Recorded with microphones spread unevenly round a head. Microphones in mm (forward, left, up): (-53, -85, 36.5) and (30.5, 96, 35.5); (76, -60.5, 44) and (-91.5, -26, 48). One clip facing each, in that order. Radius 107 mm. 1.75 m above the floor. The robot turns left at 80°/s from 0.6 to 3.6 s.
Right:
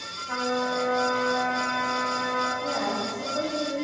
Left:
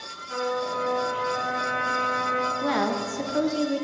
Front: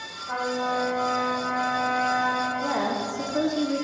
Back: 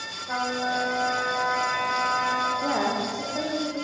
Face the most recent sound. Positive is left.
turn(degrees=15)